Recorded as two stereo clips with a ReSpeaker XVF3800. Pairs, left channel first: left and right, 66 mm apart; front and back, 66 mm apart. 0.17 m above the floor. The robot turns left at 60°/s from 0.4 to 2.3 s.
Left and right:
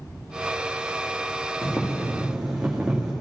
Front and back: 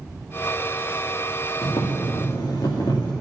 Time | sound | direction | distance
1.6 | boiling | 30° left | 2.5 m